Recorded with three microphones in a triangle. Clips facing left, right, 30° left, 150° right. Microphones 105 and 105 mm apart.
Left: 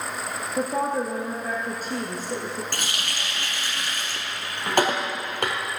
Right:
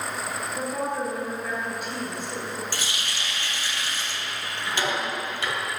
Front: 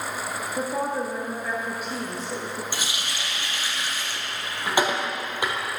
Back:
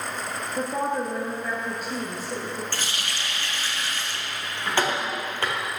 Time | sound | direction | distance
0.6 | a woman speaking | 120° left | 1.6 m
2.7 | a running tap | 105° left | 1.7 m